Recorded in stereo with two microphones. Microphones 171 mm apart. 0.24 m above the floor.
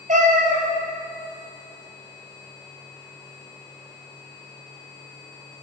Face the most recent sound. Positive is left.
turn(degrees=-55)  # may be behind; listen again after turning